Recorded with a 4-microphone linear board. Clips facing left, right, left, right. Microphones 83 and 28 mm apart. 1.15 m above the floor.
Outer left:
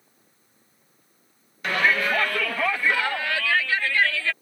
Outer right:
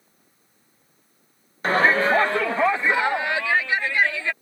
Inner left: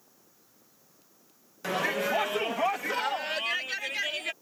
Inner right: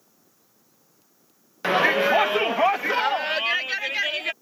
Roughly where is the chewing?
No chewing in this recording.